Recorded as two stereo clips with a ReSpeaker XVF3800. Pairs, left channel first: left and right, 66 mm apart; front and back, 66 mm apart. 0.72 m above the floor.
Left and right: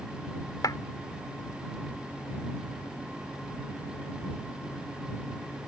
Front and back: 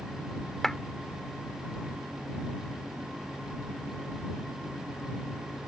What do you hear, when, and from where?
0.6 s a clap: 85° left